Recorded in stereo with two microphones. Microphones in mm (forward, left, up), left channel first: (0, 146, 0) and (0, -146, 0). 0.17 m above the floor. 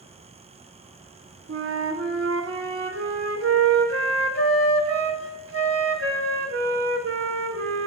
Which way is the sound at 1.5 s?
50° right (ahead or behind).